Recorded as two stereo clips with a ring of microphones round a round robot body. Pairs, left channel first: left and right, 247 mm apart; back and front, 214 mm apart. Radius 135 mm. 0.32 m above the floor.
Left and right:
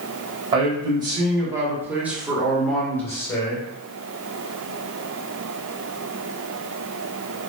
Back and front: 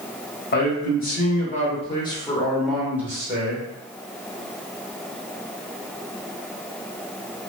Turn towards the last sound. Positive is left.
turn(degrees=35)